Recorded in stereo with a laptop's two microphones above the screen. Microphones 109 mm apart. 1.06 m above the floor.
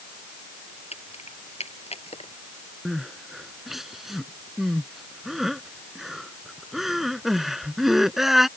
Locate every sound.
0.9 s keys jangling: 70° left (ahead or behind); by 2.3 s 65° left (ahead or behind)
2.9 s crying: centre (ahead or behind)